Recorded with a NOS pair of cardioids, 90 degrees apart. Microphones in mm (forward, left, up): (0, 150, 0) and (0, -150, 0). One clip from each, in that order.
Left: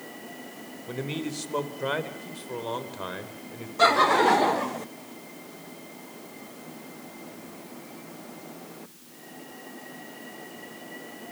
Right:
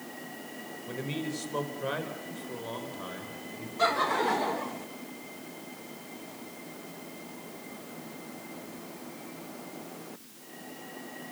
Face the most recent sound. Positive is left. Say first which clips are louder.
# left 7 dB
turn(degrees=40)